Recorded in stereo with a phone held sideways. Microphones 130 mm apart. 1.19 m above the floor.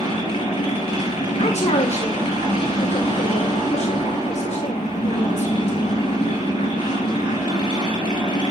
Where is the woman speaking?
55° left (ahead or behind), 1.0 m.